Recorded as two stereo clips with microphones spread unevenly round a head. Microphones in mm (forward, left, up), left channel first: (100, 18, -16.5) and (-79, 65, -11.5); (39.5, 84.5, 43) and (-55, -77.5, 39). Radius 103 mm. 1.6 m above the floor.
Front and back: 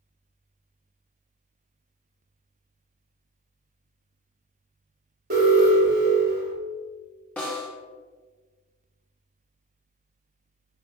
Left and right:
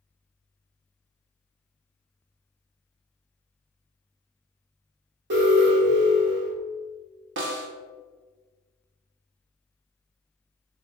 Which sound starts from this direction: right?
A snare drum, at 7.4 s.